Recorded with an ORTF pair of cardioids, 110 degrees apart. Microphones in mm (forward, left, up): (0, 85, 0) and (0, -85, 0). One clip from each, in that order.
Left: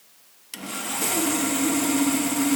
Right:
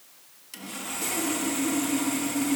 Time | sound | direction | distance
0.5 | sawing | 35° left | 1.0 m